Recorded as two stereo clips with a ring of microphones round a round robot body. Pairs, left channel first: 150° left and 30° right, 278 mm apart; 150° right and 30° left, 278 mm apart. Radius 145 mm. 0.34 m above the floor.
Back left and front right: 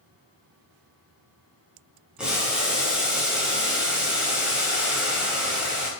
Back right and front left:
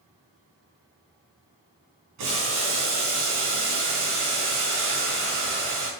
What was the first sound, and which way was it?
Boiling, 55° left.